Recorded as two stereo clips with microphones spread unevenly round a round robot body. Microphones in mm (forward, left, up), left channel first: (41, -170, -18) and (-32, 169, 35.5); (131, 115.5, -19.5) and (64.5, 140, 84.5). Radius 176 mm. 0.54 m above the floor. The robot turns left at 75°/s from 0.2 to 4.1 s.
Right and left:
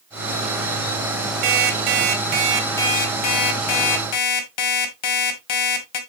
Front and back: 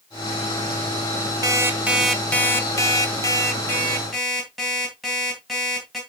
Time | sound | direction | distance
1.4 | an alarm clock | 105° left | 2.0 m